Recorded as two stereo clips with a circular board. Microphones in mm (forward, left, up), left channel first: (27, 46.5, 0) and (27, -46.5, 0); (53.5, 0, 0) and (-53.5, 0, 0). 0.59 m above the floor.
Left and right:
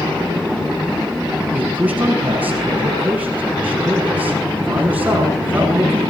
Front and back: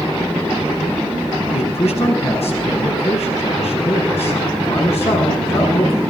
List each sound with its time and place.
1.5 s a man speaking: 15° right, 7.5 m